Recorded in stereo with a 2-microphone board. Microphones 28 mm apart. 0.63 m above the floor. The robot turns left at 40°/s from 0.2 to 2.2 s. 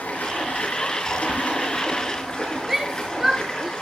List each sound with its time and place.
0.0 s running water: 105° left, 4.5 m; by 3.8 s 25° left, 4.5 m
2.7 s a shout: 5° right (ahead or behind), 1.4 m